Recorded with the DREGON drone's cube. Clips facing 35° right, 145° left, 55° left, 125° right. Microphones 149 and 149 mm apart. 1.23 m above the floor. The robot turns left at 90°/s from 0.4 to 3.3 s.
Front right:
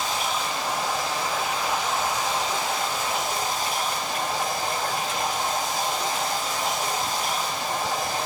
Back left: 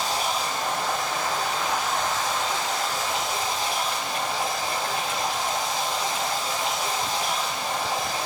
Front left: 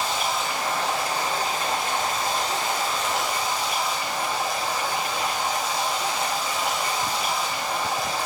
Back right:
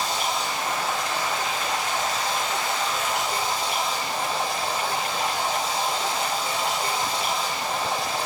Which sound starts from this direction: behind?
Running water, at 0.0 s.